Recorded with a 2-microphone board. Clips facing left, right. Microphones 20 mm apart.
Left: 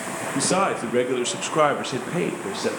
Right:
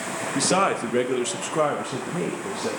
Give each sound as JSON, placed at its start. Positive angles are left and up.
{"t": 0.3, "sound": "a man speaking", "side_deg": -15, "distance_m": 0.8}